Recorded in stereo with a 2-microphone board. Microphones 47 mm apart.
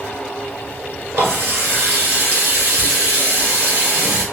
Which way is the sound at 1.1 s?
65° right (ahead or behind).